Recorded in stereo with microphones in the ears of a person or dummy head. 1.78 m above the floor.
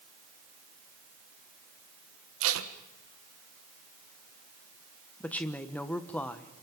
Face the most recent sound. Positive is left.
turn(degrees=10)  # may be behind; listen again after turning